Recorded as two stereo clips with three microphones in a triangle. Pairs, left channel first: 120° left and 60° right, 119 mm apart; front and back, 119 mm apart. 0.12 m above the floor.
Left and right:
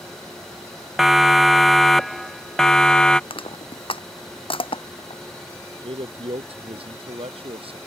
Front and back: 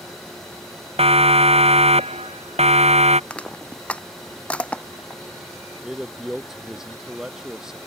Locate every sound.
1.0 s a siren: 150° right; by 3.2 s 155° right
3.3 s crushing: 80° left
5.8 s a man speaking: 95° right